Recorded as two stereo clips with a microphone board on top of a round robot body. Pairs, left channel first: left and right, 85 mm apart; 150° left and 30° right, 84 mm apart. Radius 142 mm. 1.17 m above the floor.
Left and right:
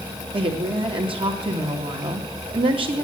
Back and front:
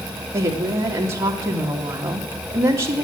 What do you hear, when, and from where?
0.3 s a woman speaking: 90° right, 2.5 m